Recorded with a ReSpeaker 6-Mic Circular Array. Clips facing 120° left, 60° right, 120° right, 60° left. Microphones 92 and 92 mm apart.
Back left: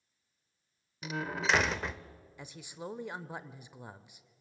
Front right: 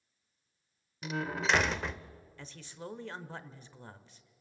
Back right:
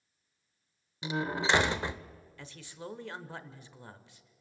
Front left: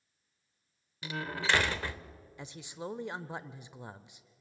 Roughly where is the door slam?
Behind right.